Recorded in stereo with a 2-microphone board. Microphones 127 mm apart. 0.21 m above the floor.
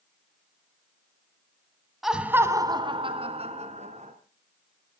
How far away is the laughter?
About 1.5 m.